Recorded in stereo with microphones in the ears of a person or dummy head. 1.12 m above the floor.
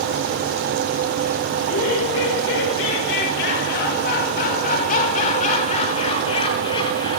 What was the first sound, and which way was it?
Laughter, 85° left.